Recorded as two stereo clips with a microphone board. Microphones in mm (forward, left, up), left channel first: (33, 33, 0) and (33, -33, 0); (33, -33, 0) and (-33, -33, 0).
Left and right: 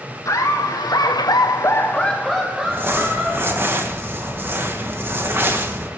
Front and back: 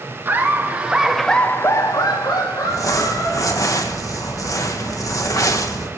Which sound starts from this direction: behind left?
Laughter, at 0.2 s.